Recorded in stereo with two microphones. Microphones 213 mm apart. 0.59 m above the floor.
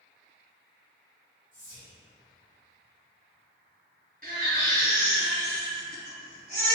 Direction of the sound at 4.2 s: 45° right (ahead or behind).